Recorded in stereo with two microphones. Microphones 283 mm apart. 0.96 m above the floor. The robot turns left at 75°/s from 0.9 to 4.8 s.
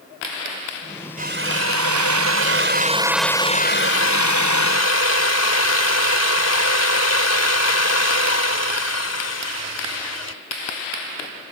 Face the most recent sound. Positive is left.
turn(degrees=60)